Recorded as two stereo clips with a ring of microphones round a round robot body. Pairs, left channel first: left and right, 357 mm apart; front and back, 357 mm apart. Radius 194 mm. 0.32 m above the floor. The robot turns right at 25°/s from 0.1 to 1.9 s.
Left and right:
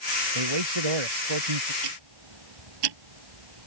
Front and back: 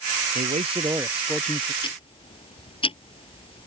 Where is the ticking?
75° right.